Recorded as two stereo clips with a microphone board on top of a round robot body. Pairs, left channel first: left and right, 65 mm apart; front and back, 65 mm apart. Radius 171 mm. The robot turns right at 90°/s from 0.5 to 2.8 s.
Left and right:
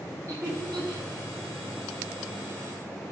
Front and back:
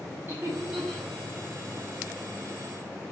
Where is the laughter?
125° right, 5 m; by 1.1 s 70° right, 5 m.